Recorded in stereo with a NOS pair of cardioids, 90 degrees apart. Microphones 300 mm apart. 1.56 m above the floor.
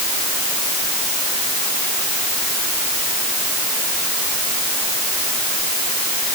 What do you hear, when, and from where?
Only background noise.